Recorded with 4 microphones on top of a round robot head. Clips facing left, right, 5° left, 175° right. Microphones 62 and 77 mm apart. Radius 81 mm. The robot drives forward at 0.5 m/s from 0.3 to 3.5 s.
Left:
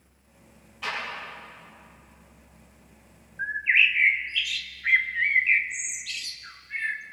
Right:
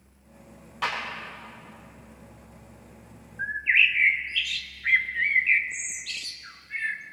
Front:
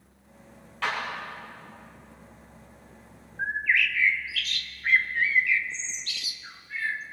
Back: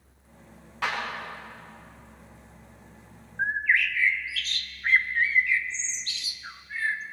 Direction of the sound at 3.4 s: 175° left.